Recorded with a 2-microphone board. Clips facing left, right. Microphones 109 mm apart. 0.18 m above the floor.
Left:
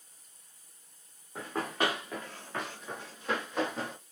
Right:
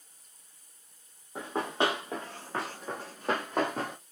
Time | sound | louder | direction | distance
1.4 | running footsteps | right 3 dB | 20° right (ahead or behind) | 1.8 m